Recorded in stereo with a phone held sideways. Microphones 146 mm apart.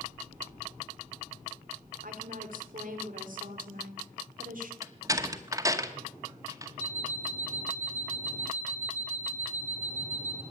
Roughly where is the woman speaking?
Right.